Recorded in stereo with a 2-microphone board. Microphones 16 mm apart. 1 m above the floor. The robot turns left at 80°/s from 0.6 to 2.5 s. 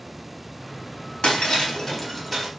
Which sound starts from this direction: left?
Breaking glass, at 1.2 s.